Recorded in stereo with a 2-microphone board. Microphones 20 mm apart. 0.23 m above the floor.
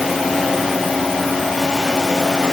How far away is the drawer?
No drawer in this recording.